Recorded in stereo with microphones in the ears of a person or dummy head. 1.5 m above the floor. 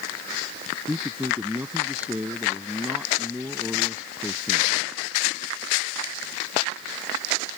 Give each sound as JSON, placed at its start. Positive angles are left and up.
{"t": 0.9, "sound": "a man speaking", "side_deg": -5}